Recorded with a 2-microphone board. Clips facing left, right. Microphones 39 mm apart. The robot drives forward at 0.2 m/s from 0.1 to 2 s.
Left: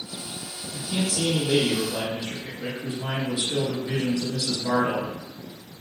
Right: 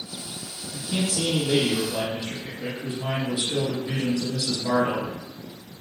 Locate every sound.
0.7 s a man speaking: 10° right (ahead or behind), 1.9 m